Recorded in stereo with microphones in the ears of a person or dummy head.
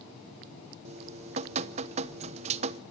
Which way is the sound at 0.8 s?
35° right (ahead or behind).